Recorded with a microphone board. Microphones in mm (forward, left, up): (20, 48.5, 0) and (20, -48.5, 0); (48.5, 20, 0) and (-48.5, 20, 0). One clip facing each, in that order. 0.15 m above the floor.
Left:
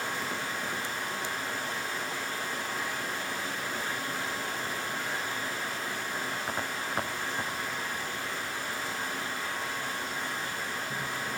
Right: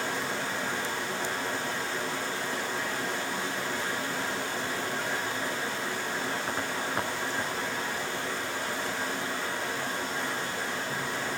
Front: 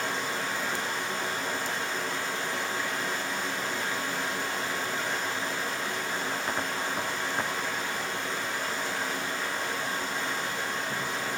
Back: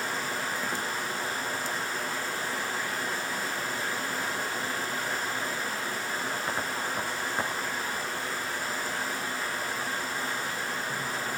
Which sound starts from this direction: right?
Running water, at 0.0 s.